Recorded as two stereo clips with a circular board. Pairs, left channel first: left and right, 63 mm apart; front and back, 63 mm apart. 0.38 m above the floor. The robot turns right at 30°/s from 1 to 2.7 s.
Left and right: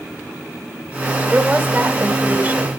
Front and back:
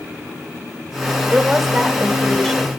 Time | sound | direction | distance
1.3 | a woman speaking | 110° right | 1.3 m